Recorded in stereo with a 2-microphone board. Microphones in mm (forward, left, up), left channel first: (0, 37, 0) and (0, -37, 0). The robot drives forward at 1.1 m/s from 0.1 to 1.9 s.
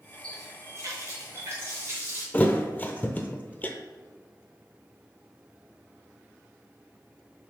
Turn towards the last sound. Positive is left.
turn(degrees=20)  # may be behind; listen again after turning